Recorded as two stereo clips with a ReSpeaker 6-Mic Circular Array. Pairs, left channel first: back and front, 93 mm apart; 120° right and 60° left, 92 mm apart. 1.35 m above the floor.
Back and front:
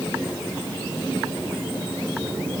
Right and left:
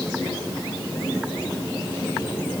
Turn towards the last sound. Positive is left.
No sound to turn to.